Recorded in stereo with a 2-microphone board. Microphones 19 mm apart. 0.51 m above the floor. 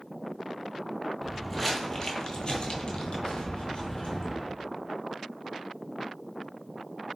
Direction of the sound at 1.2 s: Centre (ahead or behind).